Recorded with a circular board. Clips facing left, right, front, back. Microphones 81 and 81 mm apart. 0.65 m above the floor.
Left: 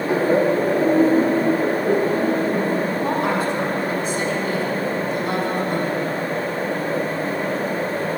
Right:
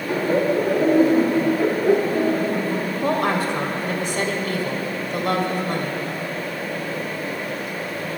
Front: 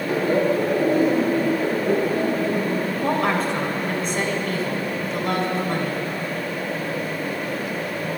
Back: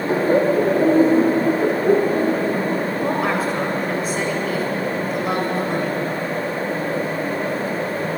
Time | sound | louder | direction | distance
0.1 | laughter | left 2 dB, back 3 dB | 145° left | 1.0 m
3.0 | a woman speaking | even, front 1 dB | 95° right | 2.5 m